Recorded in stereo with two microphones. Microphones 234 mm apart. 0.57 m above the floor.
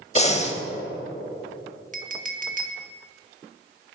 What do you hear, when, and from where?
0.1 s breathing: 30° left (ahead or behind), 0.7 m
1.9 s a clink: 35° right (ahead or behind), 0.7 m